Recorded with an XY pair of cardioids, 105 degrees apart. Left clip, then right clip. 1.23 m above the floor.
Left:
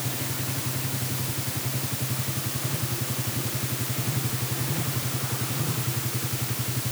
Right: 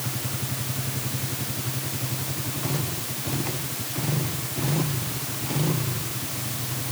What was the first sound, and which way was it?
Only background noise.